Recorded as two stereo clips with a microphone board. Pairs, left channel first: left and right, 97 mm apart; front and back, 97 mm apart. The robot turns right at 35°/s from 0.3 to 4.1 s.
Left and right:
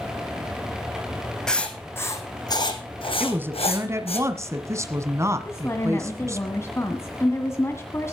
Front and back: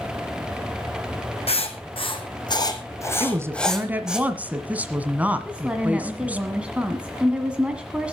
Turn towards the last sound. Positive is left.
turn(degrees=110)